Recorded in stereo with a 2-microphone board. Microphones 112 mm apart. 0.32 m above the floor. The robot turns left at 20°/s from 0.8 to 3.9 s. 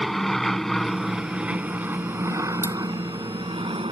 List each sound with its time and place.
0.0 s an aircraft: centre (ahead or behind); by 3.9 s 50° right (ahead or behind)
2.6 s cutlery clinking: 20° right (ahead or behind)